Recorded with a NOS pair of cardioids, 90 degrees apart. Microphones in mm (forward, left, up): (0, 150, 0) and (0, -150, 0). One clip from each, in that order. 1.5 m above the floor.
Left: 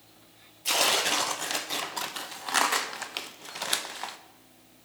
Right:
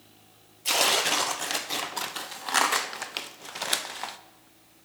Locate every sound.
0.7 s tearing paper: 5° right, 0.6 m